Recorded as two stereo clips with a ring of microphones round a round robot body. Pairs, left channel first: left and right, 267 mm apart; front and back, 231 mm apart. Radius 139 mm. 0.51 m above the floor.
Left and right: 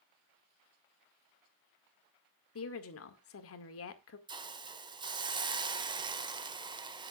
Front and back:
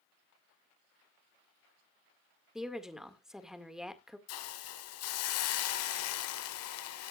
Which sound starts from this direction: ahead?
A hiss, at 4.3 s.